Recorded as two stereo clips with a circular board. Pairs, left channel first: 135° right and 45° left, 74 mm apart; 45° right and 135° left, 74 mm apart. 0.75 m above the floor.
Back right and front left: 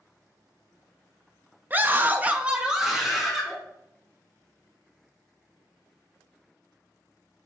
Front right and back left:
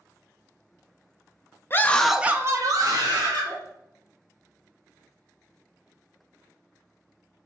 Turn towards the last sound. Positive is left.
turn(degrees=130)